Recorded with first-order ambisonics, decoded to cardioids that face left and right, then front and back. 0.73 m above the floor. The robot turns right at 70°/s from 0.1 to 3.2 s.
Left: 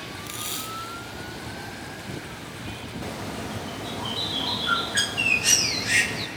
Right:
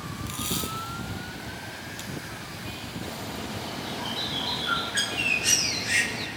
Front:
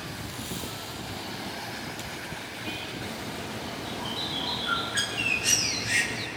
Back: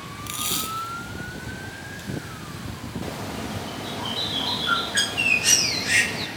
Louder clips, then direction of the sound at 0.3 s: Right 2 dB, back 13 dB; 170° left.